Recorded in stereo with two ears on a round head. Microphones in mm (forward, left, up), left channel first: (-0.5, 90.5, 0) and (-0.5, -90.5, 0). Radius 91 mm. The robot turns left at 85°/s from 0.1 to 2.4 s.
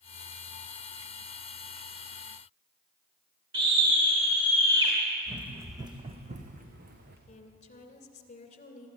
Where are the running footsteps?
Centre (ahead or behind), 2 m; by 7.2 s 50° right (ahead or behind), 3.5 m.